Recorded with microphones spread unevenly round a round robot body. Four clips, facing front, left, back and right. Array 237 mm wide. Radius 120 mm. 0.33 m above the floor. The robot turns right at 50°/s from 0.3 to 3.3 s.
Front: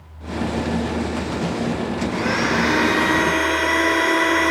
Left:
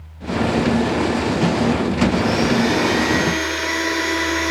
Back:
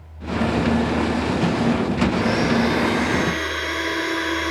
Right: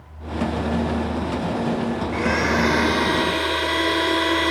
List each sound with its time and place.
2.1 s a blender: 95° right, 1.5 m; by 4.5 s 35° right, 1.5 m